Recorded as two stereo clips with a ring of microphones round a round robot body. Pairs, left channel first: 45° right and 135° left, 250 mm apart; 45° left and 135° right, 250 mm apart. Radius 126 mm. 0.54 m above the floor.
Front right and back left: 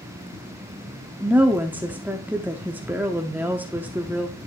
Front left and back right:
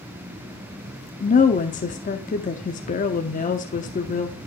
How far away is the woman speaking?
About 0.8 m.